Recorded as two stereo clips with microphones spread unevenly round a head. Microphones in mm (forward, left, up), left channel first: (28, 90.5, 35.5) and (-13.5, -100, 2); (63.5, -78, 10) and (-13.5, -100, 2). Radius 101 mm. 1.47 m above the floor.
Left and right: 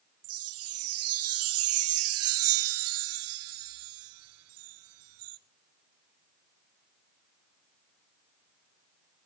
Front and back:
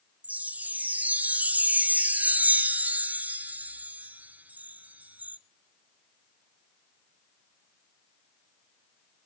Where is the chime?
90° right, 0.6 m.